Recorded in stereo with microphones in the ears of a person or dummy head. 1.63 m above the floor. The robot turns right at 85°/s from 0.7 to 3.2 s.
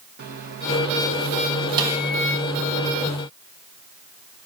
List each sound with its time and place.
0.2 s a microwave: 120° right, 1.2 m; by 2.5 s 30° left, 1.2 m
1.8 s a snare drum: 20° right (ahead or behind), 1.4 m; by 2.0 s centre (ahead or behind), 1.4 m